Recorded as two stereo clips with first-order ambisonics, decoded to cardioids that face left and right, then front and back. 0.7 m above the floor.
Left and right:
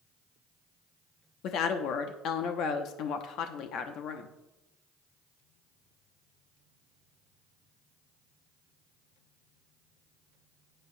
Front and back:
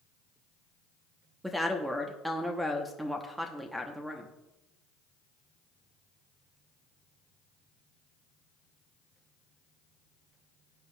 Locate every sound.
1.4 s a woman speaking: 95° left, 0.9 m